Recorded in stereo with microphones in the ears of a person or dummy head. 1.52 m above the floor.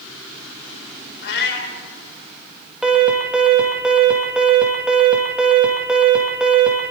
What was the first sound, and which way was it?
A cat meowing, 60° left (ahead or behind).